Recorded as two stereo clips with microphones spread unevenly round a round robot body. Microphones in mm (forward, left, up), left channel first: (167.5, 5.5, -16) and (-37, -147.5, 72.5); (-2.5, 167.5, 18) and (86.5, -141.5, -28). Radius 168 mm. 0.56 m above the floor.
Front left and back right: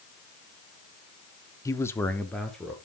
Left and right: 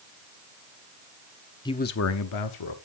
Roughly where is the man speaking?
Ahead left.